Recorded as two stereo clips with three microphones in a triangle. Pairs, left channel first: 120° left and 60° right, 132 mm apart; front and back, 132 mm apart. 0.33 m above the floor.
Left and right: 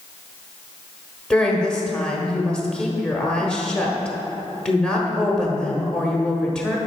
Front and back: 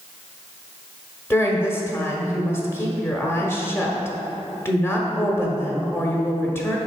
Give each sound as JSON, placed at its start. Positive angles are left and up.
{"t": 1.3, "sound": "a woman speaking", "azimuth_deg": 40, "distance_m": 1.1}